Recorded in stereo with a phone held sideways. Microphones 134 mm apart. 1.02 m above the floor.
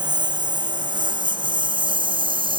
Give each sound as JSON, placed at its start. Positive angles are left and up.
{"t": 0.0, "sound": "a lawn mower", "side_deg": -30}